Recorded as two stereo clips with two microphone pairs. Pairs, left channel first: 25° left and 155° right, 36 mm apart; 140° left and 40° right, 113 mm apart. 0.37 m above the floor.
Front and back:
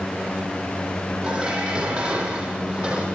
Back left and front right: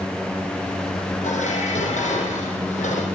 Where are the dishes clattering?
135° left, 8.5 m.